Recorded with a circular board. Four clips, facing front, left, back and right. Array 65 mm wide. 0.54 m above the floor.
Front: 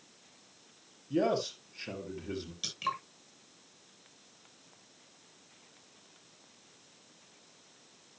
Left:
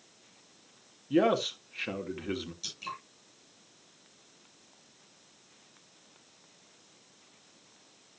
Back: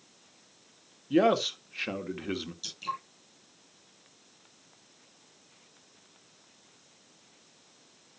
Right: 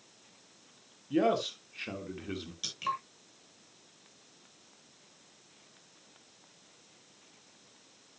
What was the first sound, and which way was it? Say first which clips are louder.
A man speaking: left 2 dB, back 6 dB; 160° left.